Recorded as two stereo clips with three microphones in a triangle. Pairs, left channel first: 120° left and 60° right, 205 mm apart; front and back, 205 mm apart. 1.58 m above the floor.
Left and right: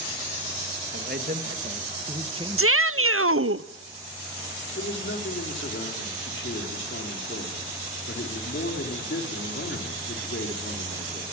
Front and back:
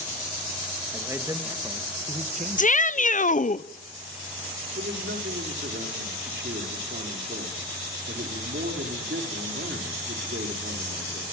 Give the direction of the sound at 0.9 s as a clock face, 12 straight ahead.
3 o'clock.